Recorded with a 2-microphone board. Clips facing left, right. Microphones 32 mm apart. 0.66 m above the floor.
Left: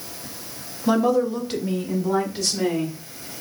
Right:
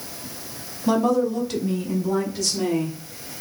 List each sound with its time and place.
0.9 s a woman speaking: 5° left (ahead or behind), 0.9 m; by 3.0 s 25° left (ahead or behind), 2.5 m